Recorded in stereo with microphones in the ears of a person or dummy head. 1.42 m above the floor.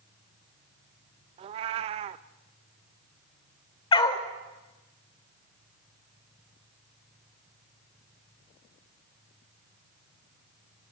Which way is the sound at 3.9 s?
30° left (ahead or behind).